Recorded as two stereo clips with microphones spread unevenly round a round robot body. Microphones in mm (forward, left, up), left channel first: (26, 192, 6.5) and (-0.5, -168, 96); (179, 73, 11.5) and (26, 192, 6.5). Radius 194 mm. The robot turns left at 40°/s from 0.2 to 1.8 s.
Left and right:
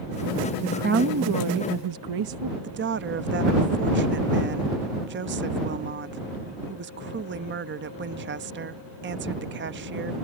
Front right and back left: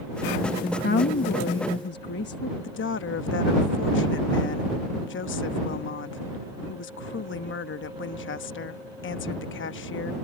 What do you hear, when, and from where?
0.6 s a woman speaking: 15° right; by 2.5 s 65° right
2.6 s a woman speaking: 30° right